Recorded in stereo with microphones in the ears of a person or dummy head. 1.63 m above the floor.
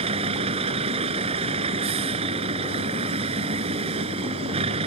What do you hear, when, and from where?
0.0 s a vehicle: 30° right (ahead or behind)